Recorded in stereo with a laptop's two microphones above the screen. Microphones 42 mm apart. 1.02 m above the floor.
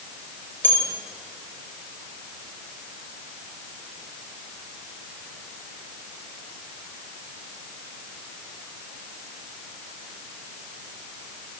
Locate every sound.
0.6 s a bell: 60° left (ahead or behind), 4.5 m